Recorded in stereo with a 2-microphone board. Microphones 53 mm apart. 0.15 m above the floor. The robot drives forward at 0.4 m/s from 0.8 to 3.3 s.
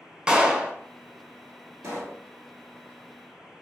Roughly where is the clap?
Centre.